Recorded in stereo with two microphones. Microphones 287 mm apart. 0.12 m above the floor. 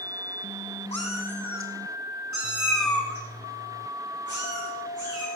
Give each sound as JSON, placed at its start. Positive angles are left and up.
{"t": 0.9, "sound": "a cat meowing", "side_deg": -60, "distance_m": 1.6}